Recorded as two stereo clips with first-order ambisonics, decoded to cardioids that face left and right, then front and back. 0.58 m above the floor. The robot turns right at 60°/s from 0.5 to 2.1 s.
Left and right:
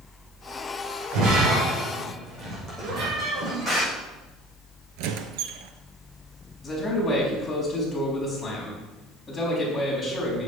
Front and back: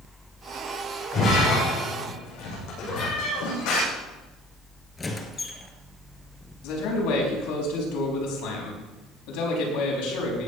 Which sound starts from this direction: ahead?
A man speaking, at 6.6 s.